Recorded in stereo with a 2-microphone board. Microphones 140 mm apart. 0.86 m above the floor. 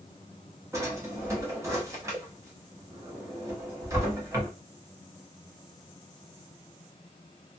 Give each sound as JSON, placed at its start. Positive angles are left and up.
{"t": 0.7, "sound": "a drawer", "side_deg": -20, "distance_m": 1.1}